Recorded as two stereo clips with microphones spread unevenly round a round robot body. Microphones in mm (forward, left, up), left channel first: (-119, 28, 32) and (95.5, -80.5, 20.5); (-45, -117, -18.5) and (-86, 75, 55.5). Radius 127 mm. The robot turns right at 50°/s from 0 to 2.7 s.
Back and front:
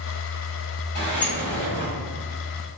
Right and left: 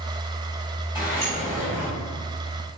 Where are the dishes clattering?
No dishes clattering in this recording.